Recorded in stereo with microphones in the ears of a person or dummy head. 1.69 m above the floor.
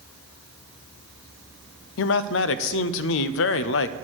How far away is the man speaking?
About 0.6 m.